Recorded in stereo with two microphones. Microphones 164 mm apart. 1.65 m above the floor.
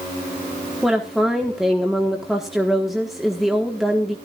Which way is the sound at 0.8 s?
Centre (ahead or behind).